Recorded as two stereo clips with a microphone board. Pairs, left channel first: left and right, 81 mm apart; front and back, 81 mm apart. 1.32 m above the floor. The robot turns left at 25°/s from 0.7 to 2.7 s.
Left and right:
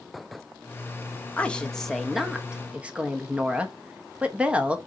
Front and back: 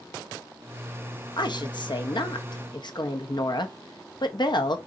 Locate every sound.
1.4 s a woman speaking: 20° left, 0.9 m; by 4.8 s 15° right, 0.9 m